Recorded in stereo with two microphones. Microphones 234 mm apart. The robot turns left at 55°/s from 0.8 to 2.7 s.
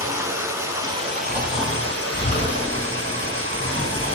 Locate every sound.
0.0 s running water: 15° right, 1.4 m; by 4.1 s 120° right, 1.4 m
1.2 s snoring: 165° right, 1.7 m; by 4.1 s 115° left, 1.7 m